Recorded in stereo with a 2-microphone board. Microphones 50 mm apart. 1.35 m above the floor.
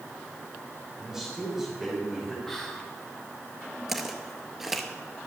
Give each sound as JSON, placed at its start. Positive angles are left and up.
{"t": 1.0, "sound": "a man speaking", "side_deg": -5, "distance_m": 5.5}
{"t": 2.5, "sound": "whispering", "side_deg": 5, "distance_m": 2.0}
{"t": 3.9, "sound": "footsteps", "side_deg": -5, "distance_m": 1.5}